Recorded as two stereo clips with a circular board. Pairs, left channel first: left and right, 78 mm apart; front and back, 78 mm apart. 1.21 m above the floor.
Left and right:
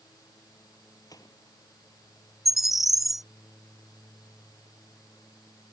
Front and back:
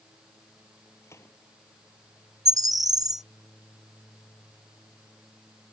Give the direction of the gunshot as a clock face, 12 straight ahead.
10 o'clock.